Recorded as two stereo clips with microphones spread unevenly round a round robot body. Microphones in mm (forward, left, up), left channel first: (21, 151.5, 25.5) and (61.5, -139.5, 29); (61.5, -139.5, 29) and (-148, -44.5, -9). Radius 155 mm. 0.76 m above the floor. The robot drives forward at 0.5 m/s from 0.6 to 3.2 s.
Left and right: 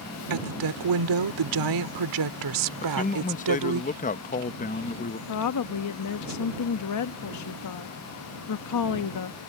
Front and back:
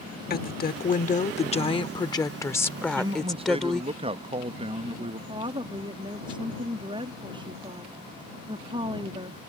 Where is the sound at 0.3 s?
75° right; by 3.8 s 115° right.